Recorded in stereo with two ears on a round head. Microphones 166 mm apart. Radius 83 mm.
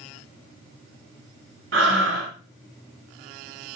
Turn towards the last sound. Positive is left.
turn(degrees=-70)  # may be behind; listen again after turning